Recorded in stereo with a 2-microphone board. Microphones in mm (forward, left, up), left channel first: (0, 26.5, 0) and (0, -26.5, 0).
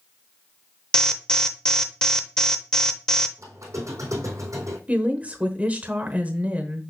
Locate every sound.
0.9 s an alarm: 10° left (ahead or behind), 0.6 m
3.4 s a squeak: 80° right, 2 m
4.9 s a woman speaking: 30° right (ahead or behind), 1.0 m